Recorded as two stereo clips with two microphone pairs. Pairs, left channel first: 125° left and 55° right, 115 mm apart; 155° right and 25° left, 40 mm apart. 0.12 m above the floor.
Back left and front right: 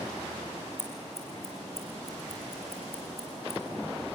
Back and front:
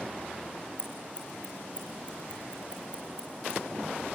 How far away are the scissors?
About 5 m.